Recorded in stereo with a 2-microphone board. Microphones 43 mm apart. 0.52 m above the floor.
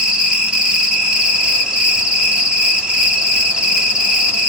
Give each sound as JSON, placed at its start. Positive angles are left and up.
{"t": 0.0, "sound": "an insect", "side_deg": -20, "distance_m": 0.9}